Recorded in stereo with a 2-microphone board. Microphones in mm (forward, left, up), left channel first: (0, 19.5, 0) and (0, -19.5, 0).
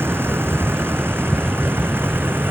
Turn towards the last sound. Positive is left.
turn(degrees=-70)  # may be behind; listen again after turning